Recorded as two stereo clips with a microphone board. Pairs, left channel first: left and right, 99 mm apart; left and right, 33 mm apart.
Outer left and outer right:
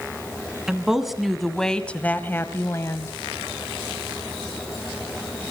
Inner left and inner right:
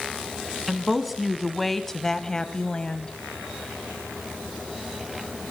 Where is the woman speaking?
5° right (ahead or behind), 2.5 m; by 3.1 s 30° left (ahead or behind), 1.6 m.